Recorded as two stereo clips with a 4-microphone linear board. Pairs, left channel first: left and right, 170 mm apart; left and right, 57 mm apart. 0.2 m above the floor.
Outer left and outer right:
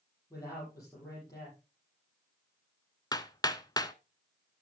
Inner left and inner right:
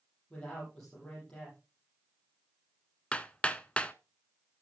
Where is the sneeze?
I don't hear a sneeze.